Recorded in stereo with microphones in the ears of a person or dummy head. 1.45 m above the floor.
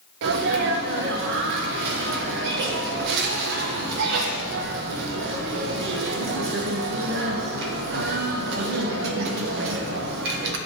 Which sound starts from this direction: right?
A sneeze, at 0.2 s.